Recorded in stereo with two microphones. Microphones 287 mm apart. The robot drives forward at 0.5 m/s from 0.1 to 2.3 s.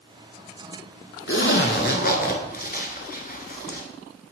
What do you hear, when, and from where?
1.3 s a zipper: 50° left (ahead or behind), 0.8 m; by 3.8 s 35° left (ahead or behind), 1.1 m